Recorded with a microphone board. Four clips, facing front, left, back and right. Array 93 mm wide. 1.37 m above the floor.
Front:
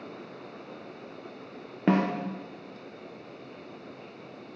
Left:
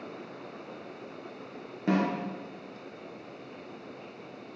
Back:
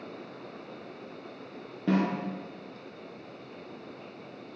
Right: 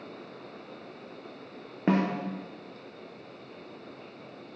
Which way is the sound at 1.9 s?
35° right.